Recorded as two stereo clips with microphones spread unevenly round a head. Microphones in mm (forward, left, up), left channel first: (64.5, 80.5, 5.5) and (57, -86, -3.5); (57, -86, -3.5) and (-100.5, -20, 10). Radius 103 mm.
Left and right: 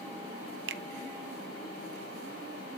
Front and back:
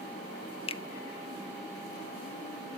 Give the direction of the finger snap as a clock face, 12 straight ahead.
3 o'clock.